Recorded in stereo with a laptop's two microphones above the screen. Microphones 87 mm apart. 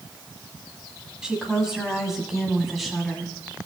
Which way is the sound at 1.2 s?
5° right (ahead or behind).